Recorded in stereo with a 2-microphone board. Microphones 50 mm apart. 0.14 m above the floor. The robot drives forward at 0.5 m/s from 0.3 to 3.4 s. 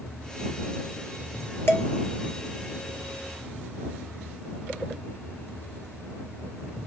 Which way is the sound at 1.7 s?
55° left (ahead or behind).